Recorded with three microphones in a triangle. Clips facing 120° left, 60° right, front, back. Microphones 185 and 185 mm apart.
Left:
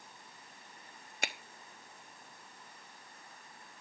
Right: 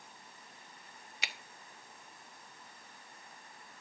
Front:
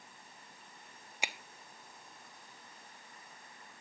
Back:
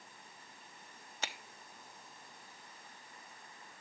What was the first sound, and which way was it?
A finger snap, 75° left.